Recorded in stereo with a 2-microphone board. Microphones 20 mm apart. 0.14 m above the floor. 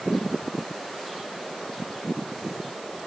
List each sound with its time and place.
Only background noise.